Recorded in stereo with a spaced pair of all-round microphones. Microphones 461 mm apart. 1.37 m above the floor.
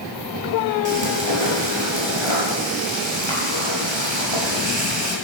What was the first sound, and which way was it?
Frying, 70° right (ahead or behind).